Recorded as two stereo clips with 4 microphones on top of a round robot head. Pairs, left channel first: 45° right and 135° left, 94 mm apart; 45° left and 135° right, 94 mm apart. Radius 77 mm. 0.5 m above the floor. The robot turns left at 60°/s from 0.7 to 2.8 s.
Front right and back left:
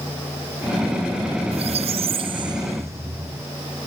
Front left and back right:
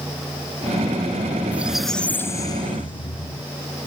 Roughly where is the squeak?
Behind left.